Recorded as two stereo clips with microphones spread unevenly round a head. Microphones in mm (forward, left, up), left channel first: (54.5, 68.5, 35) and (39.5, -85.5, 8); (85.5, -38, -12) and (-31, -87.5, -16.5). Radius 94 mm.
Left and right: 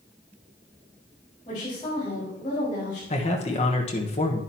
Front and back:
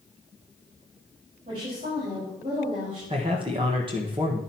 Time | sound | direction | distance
1.4 | a woman speaking | 150° left | 5 m
3.1 | a man speaking | 140° left | 1.3 m